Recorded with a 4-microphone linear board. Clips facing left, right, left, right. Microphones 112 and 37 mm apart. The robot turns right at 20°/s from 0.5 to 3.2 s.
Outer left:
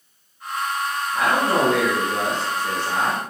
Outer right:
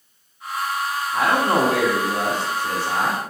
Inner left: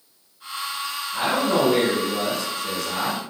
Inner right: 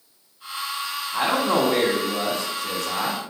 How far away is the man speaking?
About 1.0 m.